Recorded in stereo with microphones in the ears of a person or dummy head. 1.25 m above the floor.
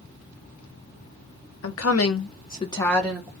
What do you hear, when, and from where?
1.6 s a woman speaking: 70° left (ahead or behind), 0.8 m; by 3.3 s 20° right (ahead or behind), 0.8 m